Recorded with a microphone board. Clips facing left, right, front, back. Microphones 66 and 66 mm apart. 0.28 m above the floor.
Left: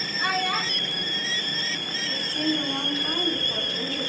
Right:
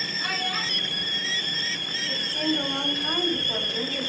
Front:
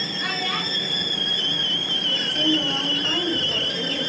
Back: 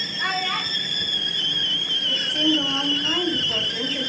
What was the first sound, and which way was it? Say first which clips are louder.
A child speaking: left 5 dB, back 3 dB; 135° left.